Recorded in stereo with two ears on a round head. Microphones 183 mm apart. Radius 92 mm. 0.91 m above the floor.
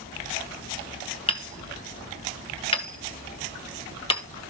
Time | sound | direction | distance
1.3 | hammering | 30° left (ahead or behind) | 1.6 m